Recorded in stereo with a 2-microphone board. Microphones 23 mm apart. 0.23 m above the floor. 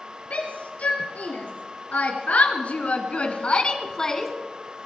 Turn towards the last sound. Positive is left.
turn(degrees=10)  # may be behind; listen again after turning